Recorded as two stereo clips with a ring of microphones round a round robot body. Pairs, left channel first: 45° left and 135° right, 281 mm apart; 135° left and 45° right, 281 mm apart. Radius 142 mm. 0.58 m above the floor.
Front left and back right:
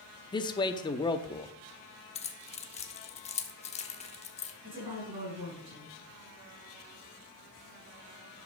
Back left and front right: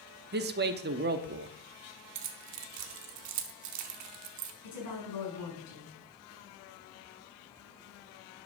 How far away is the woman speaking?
About 5.5 m.